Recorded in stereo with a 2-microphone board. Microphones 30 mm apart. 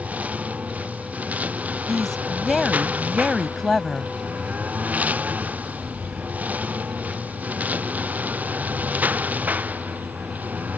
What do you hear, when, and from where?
0.0 s a lawn mower: 50° right (ahead or behind); by 10.8 s 60° right (ahead or behind)
1.9 s a woman speaking: 10° left (ahead or behind)